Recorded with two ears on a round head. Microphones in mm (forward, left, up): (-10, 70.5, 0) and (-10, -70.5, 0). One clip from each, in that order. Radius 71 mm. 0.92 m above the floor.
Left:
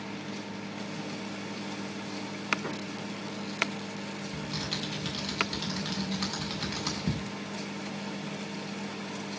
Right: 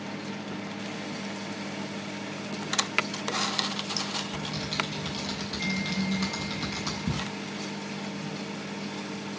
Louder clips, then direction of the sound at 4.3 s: Right 3 dB; 35° left (ahead or behind).